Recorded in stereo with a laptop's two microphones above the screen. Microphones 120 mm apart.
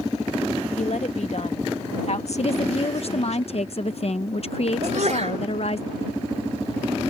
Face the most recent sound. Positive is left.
turn(degrees=-70)  # may be behind; listen again after turning